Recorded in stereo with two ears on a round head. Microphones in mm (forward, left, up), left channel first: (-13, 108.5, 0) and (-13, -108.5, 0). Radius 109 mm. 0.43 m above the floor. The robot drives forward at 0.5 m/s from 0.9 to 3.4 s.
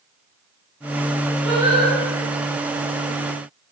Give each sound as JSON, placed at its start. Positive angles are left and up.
{"t": 1.4, "sound": "singing", "side_deg": -55, "distance_m": 2.0}